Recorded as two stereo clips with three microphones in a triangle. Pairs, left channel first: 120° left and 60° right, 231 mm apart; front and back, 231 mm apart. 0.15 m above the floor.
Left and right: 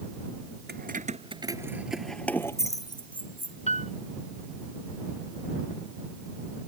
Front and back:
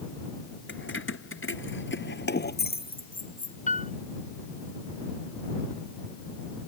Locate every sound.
0.7 s keys jangling: 20° right; by 3.6 s 55° left
3.7 s a piano: 55° left